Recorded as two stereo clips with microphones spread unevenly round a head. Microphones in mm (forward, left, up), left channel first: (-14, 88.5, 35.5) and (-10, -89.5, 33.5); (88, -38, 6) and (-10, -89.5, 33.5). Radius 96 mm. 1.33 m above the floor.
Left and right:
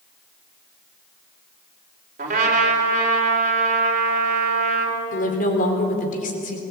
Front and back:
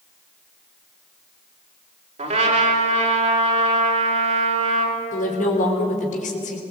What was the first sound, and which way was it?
A trumpet, 140° right.